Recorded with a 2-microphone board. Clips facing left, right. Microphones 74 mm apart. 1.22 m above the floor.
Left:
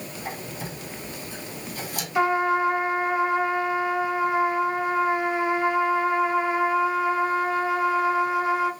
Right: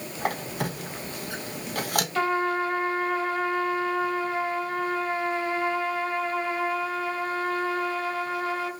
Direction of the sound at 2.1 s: 15° left (ahead or behind).